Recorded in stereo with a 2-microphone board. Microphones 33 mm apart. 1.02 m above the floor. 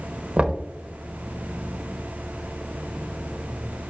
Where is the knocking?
35° right (ahead or behind), 0.8 m.